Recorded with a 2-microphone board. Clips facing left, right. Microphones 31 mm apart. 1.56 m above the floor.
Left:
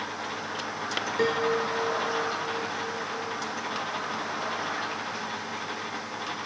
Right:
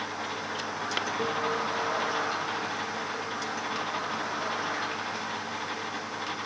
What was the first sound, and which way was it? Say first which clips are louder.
A piano: left 7 dB; 70° left (ahead or behind).